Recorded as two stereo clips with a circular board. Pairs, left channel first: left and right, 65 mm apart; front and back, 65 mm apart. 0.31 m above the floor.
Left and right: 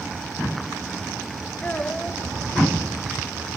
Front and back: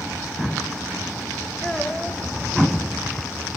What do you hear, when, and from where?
1.6 s a child speaking: 70° left, 0.7 m